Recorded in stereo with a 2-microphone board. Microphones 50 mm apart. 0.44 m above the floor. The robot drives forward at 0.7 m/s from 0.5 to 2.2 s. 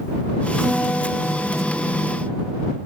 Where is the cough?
No cough in this recording.